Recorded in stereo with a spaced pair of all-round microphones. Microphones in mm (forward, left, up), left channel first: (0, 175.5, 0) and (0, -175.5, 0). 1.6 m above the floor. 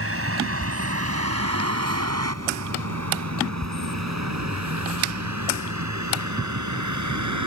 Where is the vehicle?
40° right (ahead or behind); by 7.5 s 55° right (ahead or behind).